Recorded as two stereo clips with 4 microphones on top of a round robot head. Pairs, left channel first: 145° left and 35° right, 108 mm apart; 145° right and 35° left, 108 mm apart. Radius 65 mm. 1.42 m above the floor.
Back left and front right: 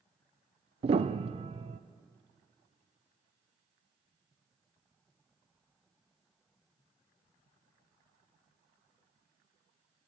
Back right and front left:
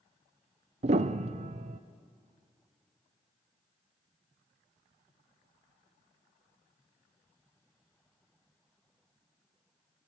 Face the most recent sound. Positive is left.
turn(degrees=5)